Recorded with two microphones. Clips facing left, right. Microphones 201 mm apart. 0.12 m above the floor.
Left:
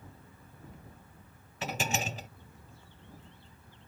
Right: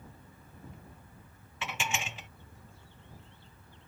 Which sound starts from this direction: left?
Dishes clattering, at 1.6 s.